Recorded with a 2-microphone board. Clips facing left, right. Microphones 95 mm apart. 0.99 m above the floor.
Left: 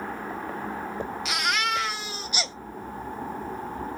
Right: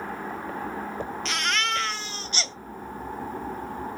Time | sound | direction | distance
1.2 | a baby crying | 10° left (ahead or behind) | 0.5 m